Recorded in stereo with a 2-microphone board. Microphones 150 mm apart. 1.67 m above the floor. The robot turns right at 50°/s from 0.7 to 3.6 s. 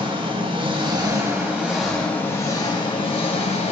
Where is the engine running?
55° right, 0.9 m; by 3.7 s 90° left, 0.9 m.